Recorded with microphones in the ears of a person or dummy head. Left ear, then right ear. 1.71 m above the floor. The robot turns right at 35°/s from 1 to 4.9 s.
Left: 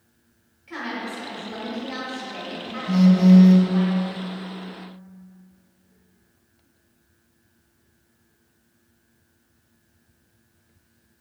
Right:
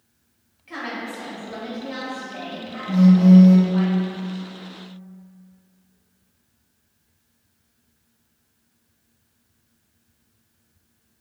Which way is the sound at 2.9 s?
60° left (ahead or behind).